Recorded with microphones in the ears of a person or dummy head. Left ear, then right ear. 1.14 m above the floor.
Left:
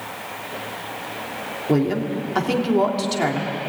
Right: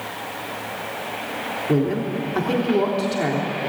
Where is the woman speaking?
25° left (ahead or behind), 3 m.